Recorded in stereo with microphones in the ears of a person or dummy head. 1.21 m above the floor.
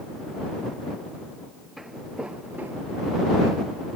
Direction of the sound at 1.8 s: 5° right (ahead or behind).